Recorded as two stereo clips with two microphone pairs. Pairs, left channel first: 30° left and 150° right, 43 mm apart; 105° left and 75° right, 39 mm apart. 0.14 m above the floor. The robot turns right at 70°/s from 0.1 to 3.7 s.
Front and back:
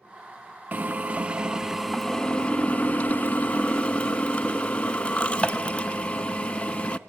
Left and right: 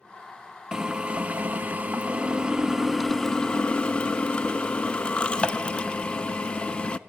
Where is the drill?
140° right, 0.6 m; by 7.0 s 70° left, 0.6 m.